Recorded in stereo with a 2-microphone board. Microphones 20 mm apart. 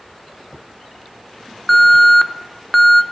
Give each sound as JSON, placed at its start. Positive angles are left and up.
{"t": 1.7, "sound": "an alarm", "side_deg": 10, "distance_m": 0.5}